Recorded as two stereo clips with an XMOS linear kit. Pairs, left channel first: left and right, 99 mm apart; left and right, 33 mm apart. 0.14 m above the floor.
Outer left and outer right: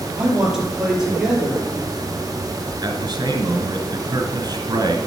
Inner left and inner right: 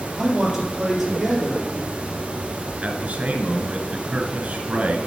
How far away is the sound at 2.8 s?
About 1.6 m.